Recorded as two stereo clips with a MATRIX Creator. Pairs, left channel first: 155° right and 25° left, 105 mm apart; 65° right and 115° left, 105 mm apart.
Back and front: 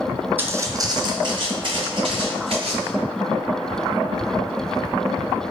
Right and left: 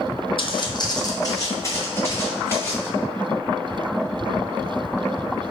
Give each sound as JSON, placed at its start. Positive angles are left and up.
{"t": 0.4, "sound": "footsteps", "azimuth_deg": -45, "distance_m": 0.5}